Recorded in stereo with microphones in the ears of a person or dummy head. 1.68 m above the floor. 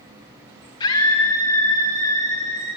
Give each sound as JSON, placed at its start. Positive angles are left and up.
{"t": 0.8, "sound": "a scream", "side_deg": 25, "distance_m": 1.9}